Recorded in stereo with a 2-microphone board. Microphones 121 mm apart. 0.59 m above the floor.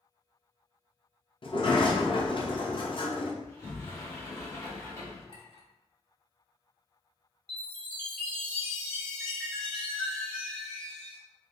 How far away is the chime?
About 1.3 m.